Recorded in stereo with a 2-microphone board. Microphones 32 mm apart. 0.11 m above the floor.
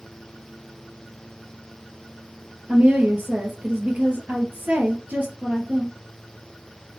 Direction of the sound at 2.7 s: 50° right (ahead or behind).